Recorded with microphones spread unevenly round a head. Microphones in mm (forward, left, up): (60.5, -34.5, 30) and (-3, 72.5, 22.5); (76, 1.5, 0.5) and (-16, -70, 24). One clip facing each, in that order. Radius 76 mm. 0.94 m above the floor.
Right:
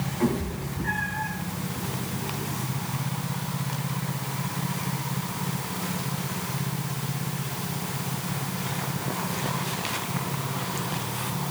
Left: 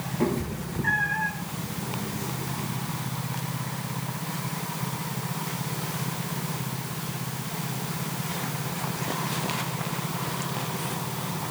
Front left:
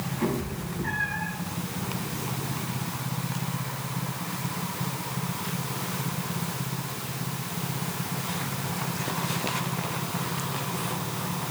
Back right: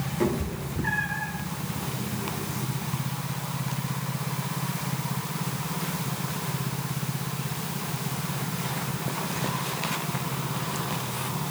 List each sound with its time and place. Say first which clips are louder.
0.2 s a cat meowing: even, back right 2 dB; 170° right, 1.9 m; by 1.3 s 150° left, 1.6 m